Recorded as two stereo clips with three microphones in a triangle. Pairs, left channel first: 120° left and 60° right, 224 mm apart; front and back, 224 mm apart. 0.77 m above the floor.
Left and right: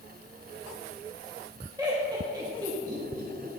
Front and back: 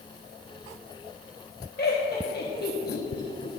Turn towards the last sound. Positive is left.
turn(degrees=5)